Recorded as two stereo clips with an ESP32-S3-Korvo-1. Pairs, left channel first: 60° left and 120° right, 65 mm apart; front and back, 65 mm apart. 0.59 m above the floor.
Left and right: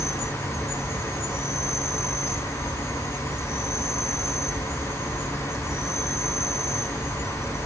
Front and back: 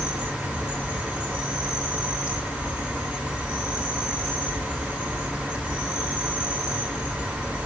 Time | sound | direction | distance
0.0 | an insect | 105° left | 7 m